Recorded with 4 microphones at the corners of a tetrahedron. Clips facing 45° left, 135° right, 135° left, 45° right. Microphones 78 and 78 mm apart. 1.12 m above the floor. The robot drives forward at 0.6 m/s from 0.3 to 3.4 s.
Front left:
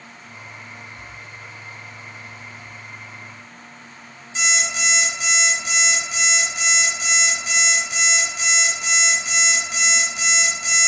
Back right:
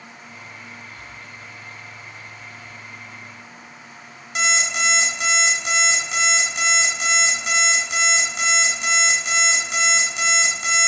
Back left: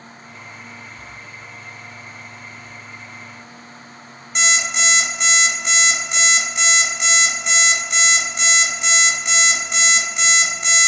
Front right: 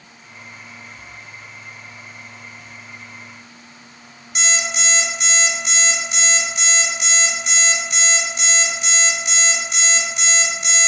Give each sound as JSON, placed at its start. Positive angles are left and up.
{"t": 4.3, "sound": "an alarm clock", "azimuth_deg": -175, "distance_m": 3.0}